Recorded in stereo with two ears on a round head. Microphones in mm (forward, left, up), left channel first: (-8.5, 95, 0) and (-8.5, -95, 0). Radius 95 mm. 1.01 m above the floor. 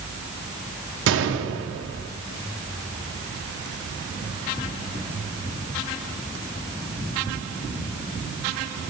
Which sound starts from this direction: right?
A gunshot, at 1.1 s.